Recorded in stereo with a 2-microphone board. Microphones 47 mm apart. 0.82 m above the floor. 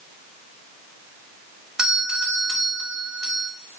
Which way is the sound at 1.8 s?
15° right (ahead or behind).